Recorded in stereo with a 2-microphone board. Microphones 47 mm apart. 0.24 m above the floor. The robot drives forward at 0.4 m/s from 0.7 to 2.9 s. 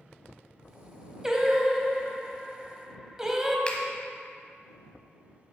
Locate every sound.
1.2 s singing: 10° right (ahead or behind), 0.8 m; by 3.6 s 15° right (ahead or behind), 0.7 m
3.7 s a finger snap: 20° left (ahead or behind), 1.0 m